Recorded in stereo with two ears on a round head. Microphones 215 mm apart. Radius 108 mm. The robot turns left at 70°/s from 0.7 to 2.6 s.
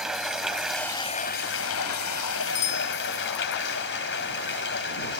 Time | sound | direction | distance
0.0 | running water | straight behind | ?
2.5 | a bicycle bell | 70° left (ahead or behind) | ?